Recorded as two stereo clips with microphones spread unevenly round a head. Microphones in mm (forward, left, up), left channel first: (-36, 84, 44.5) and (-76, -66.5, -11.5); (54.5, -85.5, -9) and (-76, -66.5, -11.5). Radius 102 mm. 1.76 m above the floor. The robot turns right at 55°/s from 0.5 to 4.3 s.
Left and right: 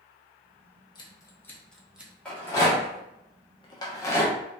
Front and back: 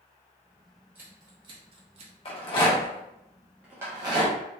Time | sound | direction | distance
0.9 | scissors | 95° left | 0.7 m
2.2 | a rattle | 15° left | 0.8 m